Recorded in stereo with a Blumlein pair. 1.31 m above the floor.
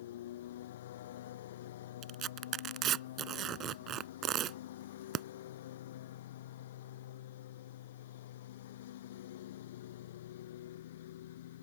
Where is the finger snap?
I don't hear a finger snap.